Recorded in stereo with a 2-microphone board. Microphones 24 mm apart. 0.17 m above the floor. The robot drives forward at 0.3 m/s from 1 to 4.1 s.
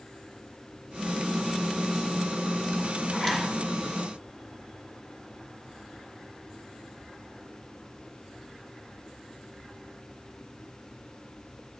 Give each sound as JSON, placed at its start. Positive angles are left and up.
{"t": 3.1, "sound": "a zipper", "side_deg": 15, "distance_m": 1.6}